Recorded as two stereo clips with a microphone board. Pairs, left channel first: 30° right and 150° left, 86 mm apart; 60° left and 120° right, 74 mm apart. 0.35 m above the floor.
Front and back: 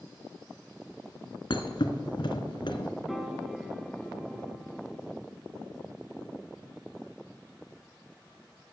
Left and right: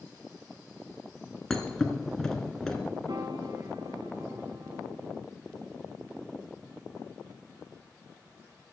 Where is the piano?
120° right, 1.3 m.